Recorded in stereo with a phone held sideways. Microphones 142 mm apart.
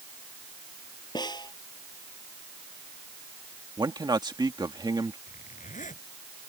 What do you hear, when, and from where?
1.1 s a snare drum: 30° left (ahead or behind)
3.8 s a man speaking: 30° right (ahead or behind)
5.3 s a zipper: 60° left (ahead or behind)